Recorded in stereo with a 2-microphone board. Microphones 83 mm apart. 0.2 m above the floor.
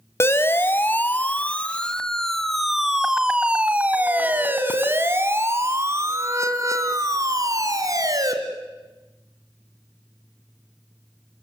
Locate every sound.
0.2 s a siren: 30° left (ahead or behind), 2 m; by 8.3 s 45° right (ahead or behind), 4 m